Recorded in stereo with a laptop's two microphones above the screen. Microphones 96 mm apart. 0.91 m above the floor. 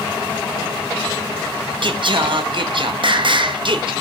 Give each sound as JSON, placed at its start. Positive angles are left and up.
{"t": 1.8, "sound": "singing", "side_deg": -60, "distance_m": 0.7}